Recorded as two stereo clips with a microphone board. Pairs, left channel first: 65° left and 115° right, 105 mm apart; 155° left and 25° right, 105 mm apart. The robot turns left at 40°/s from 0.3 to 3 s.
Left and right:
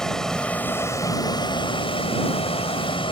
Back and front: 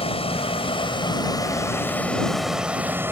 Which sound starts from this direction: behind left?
A vehicle, at 0.0 s.